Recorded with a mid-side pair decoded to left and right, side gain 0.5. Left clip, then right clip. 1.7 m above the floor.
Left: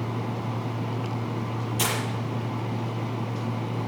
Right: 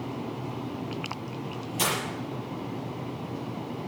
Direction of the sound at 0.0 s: 55° left.